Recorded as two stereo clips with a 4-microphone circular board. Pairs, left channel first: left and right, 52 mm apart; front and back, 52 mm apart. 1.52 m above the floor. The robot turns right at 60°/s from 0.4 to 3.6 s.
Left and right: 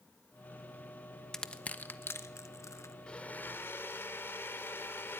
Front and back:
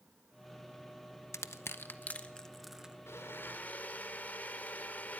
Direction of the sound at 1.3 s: 15° left.